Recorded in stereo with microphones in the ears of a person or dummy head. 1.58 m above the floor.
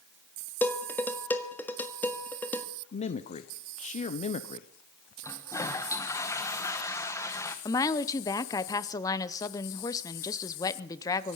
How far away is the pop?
I don't hear a pop.